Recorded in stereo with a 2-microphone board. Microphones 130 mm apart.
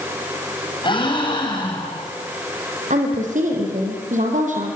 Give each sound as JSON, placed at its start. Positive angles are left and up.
{"t": 0.8, "sound": "a gasp", "side_deg": 35, "distance_m": 7.5}
{"t": 2.9, "sound": "a woman speaking", "side_deg": -70, "distance_m": 4.5}